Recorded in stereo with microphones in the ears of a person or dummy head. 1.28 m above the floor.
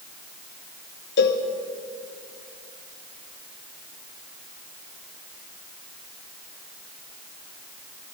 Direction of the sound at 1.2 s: 55° left (ahead or behind).